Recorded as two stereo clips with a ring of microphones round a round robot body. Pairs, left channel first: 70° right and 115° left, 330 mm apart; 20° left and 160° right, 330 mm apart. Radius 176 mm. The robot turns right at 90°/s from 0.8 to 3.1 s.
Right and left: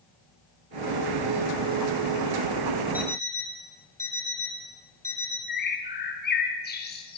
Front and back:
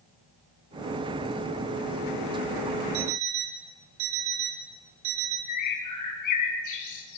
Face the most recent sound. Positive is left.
turn(degrees=-5)